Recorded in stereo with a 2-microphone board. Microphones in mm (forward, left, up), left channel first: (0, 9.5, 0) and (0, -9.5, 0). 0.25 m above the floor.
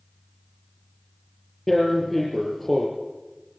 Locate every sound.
1.7 s tearing paper: 10° left (ahead or behind), 5.5 m